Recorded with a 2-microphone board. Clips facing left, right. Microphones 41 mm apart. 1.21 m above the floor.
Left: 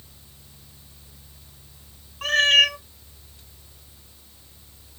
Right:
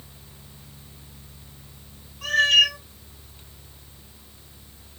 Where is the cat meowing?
45° left (ahead or behind), 1.7 m.